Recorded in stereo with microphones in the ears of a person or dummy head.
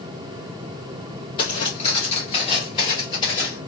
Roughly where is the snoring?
No snoring in this recording.